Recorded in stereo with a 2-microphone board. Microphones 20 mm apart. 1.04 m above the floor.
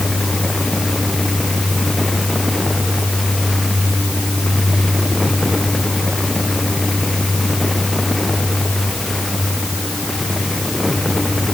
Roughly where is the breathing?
I don't hear breathing.